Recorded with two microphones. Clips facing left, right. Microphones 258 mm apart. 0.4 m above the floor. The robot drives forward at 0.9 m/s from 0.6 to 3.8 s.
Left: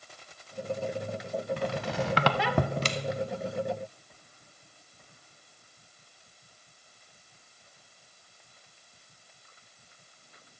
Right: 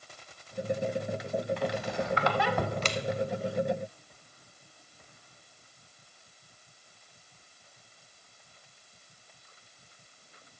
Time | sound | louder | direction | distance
1.6 | a squeak | even | 45° left (ahead or behind) | 0.8 m